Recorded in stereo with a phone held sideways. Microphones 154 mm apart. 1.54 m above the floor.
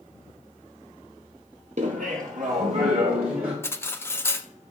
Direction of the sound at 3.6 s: 15° left (ahead or behind).